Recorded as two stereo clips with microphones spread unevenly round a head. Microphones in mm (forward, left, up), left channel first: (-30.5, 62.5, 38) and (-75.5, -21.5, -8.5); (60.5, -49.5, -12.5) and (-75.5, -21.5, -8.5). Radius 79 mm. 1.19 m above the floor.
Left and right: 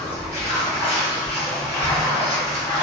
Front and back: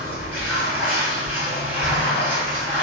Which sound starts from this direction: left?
Running water, at 0.0 s.